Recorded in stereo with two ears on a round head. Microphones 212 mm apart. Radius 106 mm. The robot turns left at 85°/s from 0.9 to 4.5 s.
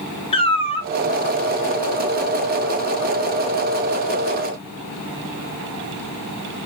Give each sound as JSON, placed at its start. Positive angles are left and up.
{"t": 0.3, "sound": "a cat meowing", "side_deg": 25, "distance_m": 0.6}